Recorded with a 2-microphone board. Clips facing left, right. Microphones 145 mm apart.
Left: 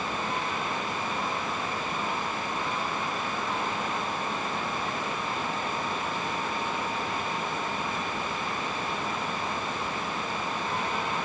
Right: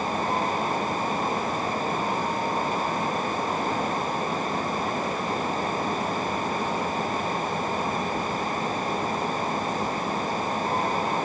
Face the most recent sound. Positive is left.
No sound to turn to.